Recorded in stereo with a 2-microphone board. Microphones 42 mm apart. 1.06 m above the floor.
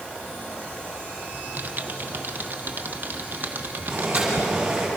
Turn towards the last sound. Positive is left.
turn(degrees=-15)  # may be behind; listen again after turning